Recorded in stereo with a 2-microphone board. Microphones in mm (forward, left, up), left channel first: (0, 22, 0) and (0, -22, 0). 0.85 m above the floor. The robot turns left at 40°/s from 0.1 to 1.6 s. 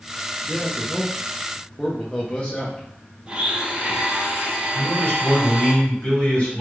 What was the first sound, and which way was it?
A man speaking, 10° left (ahead or behind).